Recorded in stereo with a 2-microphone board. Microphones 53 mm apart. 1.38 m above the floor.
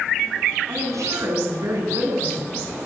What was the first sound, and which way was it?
A woman speaking, 75° right (ahead or behind).